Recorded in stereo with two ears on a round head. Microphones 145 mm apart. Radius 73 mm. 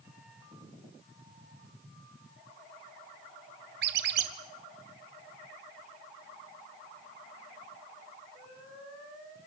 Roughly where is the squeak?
Right.